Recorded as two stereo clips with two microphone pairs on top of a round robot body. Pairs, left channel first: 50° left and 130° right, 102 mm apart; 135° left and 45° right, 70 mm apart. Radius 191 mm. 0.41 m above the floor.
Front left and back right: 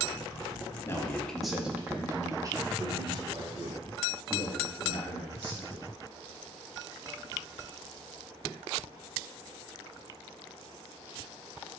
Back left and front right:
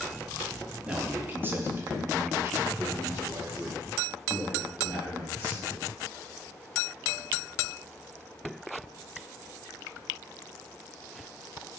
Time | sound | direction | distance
0.8 | a man speaking | 15° left | 0.8 m